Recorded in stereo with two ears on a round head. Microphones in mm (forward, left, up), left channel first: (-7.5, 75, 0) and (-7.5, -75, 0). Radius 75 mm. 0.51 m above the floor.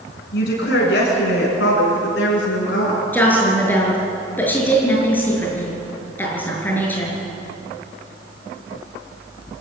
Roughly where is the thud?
I don't hear a thud.